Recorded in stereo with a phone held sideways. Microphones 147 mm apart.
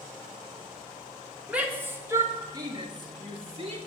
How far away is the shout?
About 1.4 m.